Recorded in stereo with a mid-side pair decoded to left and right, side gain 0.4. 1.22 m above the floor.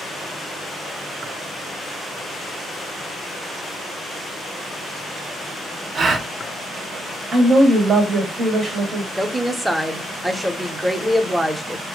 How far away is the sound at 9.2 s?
About 0.6 m.